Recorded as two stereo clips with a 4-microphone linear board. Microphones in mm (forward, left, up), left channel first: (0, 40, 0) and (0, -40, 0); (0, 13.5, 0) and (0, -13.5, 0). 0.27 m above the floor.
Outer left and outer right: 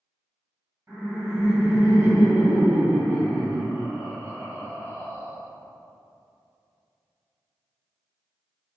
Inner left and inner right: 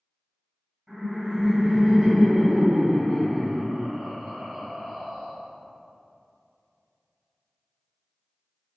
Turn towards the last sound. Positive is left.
turn(degrees=-25)  # may be behind; listen again after turning